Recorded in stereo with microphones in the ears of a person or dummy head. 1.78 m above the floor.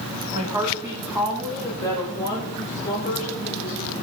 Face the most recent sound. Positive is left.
turn(degrees=45)  # may be behind; listen again after turning